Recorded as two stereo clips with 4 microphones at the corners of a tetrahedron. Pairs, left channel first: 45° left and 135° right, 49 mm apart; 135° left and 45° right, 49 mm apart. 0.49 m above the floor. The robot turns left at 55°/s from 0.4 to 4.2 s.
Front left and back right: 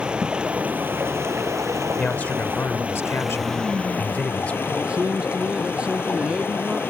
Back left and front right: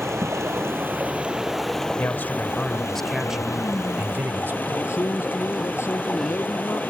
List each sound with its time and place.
0.0 s running water: 65° right; by 6.9 s 85° left
2.0 s a man speaking: 110° left; by 4.6 s 15° right
4.7 s a man speaking: 160° left